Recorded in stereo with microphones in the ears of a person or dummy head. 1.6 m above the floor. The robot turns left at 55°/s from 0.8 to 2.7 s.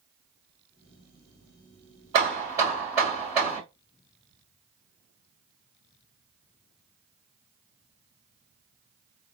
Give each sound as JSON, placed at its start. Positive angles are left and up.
{"t": 2.1, "sound": "hammering", "azimuth_deg": -140, "distance_m": 1.7}